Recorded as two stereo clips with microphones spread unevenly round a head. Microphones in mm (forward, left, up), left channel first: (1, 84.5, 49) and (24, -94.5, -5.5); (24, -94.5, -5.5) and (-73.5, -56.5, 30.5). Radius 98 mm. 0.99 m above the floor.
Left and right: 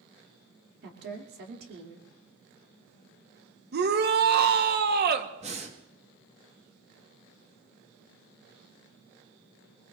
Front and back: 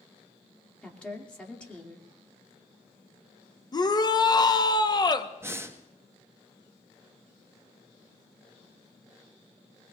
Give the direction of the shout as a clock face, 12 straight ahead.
2 o'clock.